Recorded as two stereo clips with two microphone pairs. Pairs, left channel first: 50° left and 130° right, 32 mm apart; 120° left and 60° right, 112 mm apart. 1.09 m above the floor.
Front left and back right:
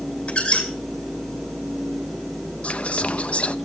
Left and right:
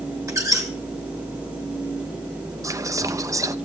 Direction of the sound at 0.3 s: Straight ahead.